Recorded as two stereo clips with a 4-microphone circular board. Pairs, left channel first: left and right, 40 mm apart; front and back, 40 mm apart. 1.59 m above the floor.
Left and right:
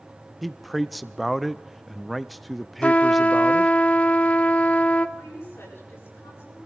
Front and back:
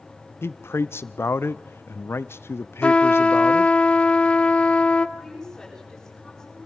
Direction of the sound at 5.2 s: 80° left.